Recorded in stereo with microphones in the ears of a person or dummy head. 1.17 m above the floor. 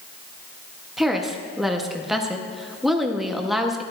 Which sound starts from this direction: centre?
A woman speaking, at 1.0 s.